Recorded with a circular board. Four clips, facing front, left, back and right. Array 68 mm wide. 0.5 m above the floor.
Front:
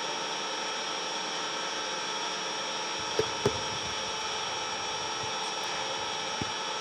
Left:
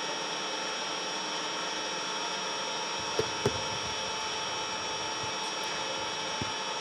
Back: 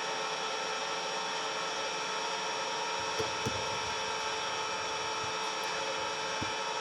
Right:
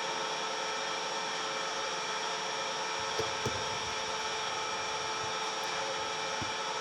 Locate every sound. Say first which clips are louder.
0.0 s an engine running: even, front 1 dB; 20° left, 7.5 m
3.0 s tapping: left 6 dB, front 4 dB; 30° left, 0.5 m